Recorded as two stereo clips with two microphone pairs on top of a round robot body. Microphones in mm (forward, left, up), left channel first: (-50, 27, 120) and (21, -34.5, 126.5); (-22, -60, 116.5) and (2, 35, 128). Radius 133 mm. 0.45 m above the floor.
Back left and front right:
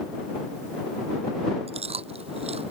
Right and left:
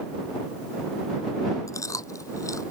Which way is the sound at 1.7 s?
45° right.